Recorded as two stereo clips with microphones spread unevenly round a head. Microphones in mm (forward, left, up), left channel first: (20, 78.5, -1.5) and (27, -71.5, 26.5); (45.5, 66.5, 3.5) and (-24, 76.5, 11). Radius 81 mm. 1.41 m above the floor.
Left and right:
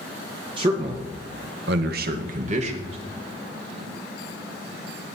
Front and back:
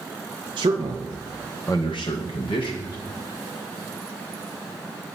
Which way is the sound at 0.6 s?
145° right.